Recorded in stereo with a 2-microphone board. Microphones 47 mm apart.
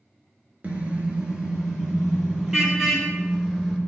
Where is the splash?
No splash in this recording.